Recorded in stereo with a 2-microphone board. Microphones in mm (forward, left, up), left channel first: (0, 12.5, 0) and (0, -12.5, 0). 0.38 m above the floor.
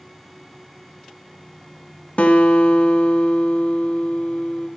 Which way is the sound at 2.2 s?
75° left (ahead or behind).